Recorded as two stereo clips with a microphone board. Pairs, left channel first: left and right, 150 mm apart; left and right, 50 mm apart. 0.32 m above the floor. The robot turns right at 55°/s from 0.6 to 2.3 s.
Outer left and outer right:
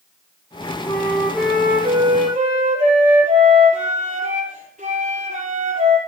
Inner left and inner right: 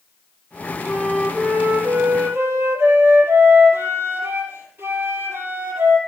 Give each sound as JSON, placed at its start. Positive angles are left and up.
{"t": 0.9, "sound": "a flute", "azimuth_deg": 160, "distance_m": 5.0}